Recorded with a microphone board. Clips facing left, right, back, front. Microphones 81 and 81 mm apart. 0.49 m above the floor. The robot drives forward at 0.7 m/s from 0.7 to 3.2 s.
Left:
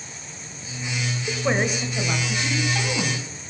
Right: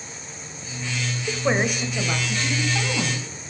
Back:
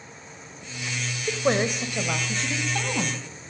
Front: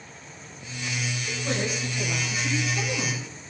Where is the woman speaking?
170° right, 1.9 m; by 3.2 s 175° right, 3 m.